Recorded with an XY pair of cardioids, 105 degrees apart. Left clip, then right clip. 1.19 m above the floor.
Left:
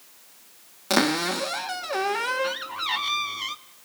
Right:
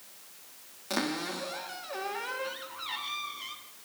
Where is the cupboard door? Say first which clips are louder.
Left 10 dB; 65° left, 1.3 m.